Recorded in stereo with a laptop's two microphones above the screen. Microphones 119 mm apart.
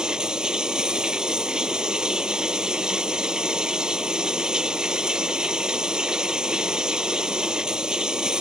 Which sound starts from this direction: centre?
Running water, at 0.0 s.